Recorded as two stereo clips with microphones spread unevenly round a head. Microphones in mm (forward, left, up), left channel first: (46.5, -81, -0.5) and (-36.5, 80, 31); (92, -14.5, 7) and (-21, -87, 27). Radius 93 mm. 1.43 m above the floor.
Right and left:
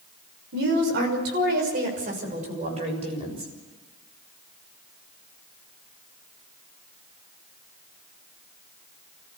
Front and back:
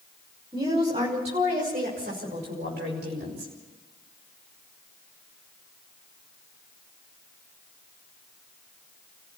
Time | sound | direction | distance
0.5 | a woman speaking | 145° left | 6 m